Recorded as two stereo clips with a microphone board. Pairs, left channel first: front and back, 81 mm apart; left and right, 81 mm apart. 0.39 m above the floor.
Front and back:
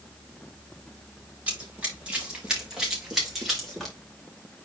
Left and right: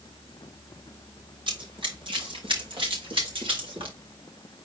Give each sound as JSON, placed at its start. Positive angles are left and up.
{"t": 1.5, "sound": "running footsteps", "azimuth_deg": -105, "distance_m": 4.5}